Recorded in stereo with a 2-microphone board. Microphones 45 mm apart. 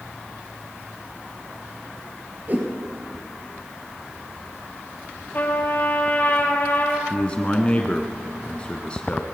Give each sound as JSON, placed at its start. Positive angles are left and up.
{"t": 2.5, "sound": "a whoosh", "side_deg": -40, "distance_m": 2.5}
{"t": 5.3, "sound": "a trumpet", "side_deg": 40, "distance_m": 2.0}
{"t": 7.1, "sound": "a man speaking", "side_deg": 25, "distance_m": 1.1}